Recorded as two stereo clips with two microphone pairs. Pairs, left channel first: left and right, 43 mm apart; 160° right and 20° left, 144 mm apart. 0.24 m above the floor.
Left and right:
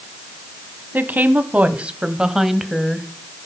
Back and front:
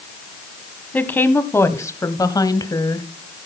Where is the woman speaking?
85° right, 1.5 m; by 3.1 s 170° left, 1.3 m.